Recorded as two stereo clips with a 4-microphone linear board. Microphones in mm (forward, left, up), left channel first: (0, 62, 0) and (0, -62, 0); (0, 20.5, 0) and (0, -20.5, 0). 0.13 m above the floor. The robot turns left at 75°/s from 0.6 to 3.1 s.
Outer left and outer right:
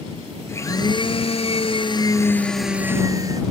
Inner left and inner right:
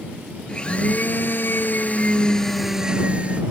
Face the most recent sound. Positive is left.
turn(degrees=-35)